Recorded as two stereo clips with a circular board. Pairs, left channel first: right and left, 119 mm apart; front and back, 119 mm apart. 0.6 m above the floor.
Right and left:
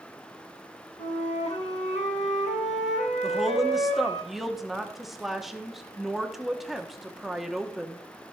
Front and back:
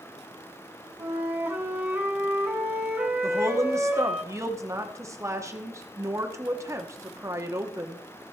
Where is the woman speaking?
175° left, 1.0 m.